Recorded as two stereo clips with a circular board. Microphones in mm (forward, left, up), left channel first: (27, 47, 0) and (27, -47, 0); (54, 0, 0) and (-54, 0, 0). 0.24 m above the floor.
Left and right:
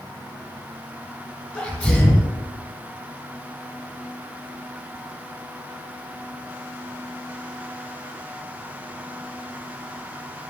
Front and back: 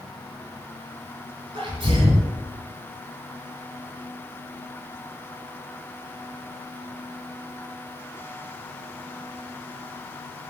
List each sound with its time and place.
1.5 s a sneeze: 165° left, 1.7 m